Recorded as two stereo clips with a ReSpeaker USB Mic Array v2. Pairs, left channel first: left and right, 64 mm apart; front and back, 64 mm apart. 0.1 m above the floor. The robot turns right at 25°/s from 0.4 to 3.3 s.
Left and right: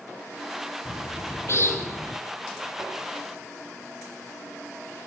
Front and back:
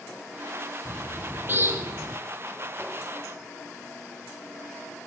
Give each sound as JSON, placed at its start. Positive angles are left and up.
{"t": 0.8, "sound": "a bird", "azimuth_deg": 115, "distance_m": 1.7}